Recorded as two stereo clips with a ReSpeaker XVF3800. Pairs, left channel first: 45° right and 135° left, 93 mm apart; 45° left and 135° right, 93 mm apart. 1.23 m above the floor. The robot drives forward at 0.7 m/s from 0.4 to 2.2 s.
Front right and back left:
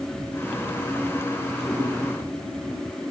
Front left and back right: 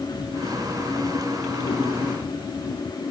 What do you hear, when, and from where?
1.6 s a cat meowing: 30° left, 8 m